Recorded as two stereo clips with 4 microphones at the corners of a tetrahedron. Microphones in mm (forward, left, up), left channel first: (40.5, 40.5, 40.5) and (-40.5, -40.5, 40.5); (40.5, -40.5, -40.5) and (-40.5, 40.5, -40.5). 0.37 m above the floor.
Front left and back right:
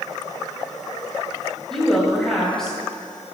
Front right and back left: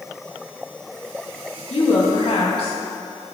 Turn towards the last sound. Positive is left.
turn(degrees=-40)